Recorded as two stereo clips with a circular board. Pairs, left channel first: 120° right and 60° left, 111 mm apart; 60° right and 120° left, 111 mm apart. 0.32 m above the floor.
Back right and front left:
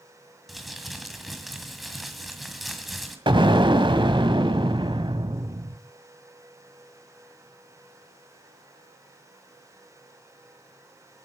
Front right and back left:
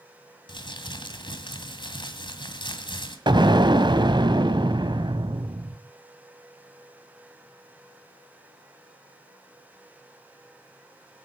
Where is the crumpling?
30° right, 2.0 m.